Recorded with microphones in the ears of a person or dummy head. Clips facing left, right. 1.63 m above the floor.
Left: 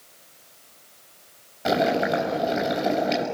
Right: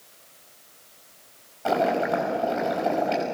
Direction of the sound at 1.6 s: 20° left (ahead or behind).